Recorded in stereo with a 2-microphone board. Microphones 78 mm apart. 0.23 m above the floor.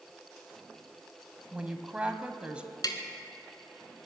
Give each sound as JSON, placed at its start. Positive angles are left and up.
{"t": 1.5, "sound": "a woman speaking", "side_deg": -15, "distance_m": 1.1}
{"t": 2.8, "sound": "tapping", "side_deg": 60, "distance_m": 1.6}